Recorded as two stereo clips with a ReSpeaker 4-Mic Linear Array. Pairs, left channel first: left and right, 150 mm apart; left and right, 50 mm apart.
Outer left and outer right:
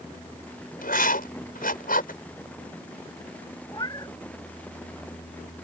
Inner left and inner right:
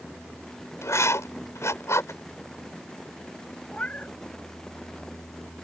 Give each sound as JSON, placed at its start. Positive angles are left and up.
{"t": 0.8, "sound": "writing", "side_deg": 75}
{"t": 3.7, "sound": "a cat meowing", "side_deg": 30}